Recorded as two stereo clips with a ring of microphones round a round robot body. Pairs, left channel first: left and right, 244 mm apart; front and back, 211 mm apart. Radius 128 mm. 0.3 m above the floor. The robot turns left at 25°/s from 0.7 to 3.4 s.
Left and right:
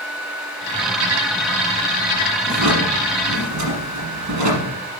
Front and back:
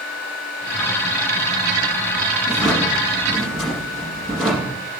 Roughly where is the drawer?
Right.